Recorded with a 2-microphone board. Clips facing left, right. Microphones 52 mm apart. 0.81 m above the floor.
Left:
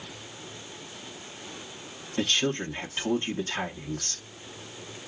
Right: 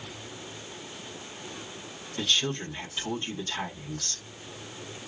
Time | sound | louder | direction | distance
2.2 | a woman speaking | left 2 dB | 45° left (ahead or behind) | 1.1 m